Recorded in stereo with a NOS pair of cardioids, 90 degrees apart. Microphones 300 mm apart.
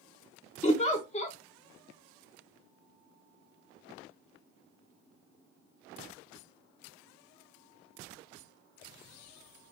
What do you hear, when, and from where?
0.6 s a giggle: 20° left, 1.0 m